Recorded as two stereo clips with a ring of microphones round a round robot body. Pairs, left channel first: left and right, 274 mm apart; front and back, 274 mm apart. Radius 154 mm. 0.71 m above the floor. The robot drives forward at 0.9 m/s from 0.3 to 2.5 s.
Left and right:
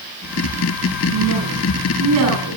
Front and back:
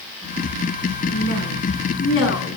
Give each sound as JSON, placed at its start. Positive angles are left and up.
{"t": 1.1, "sound": "a woman speaking", "azimuth_deg": -40, "distance_m": 9.5}